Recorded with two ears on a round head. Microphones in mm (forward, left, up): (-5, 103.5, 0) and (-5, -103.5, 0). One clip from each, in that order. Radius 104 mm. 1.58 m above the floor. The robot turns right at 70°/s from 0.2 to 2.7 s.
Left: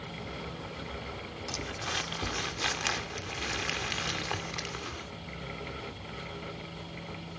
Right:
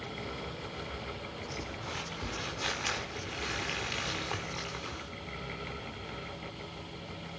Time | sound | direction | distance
1.5 | crumpling | 80° left | 2.5 m